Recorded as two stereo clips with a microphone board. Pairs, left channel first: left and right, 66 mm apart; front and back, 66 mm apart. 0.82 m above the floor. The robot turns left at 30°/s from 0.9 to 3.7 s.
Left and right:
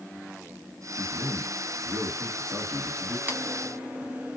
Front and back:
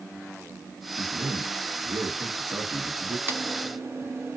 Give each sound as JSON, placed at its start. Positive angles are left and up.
{"t": 1.0, "sound": "a man speaking", "azimuth_deg": -145, "distance_m": 1.6}
{"t": 3.3, "sound": "typing on a keyboard", "azimuth_deg": -140, "distance_m": 0.8}